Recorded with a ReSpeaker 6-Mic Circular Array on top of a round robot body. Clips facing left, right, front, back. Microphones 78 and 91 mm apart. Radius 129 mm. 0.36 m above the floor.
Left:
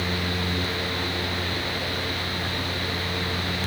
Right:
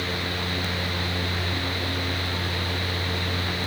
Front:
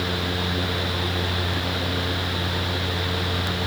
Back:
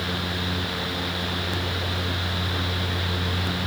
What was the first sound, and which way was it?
Only background noise.